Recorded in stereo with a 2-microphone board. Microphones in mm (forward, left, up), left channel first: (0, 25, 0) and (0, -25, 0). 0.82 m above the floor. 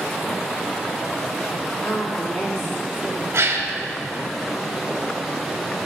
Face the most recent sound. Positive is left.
turn(degrees=-55)  # may be behind; listen again after turning